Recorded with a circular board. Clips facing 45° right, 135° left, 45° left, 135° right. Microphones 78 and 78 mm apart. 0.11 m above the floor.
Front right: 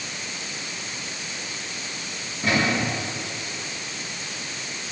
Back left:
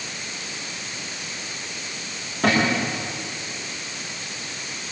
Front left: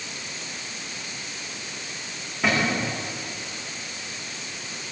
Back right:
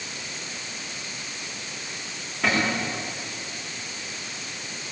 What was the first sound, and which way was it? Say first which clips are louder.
A cupboard door: back left 2 dB, front left 1 dB; 135° left.